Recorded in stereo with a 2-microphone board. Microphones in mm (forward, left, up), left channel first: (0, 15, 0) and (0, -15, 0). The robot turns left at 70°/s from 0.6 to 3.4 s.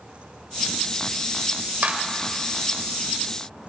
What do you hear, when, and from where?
1.8 s a clap: 70° right (ahead or behind), 1.6 m; by 2.0 s 60° right (ahead or behind), 1.6 m